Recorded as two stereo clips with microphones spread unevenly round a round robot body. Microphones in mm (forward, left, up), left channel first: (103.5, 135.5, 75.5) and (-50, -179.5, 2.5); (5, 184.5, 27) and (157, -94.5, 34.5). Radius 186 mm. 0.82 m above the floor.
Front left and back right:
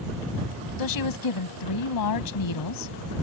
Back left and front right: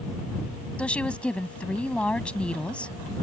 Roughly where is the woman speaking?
Ahead left.